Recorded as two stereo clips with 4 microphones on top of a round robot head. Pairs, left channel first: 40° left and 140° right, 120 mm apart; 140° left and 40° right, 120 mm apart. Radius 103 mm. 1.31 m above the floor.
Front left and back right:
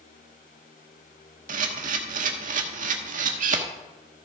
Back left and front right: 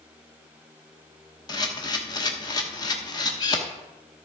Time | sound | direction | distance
1.5 | a camera shutter | 160° right | 0.9 m